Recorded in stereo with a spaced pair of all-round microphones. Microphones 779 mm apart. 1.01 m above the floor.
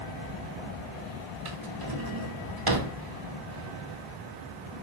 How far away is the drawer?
About 0.8 m.